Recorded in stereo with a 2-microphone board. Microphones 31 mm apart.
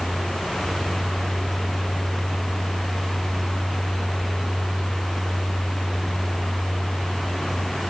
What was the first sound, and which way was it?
Only background noise.